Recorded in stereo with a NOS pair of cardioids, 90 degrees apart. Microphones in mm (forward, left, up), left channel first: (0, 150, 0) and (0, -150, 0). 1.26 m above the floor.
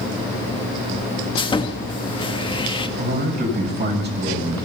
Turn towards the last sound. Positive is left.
turn(degrees=-35)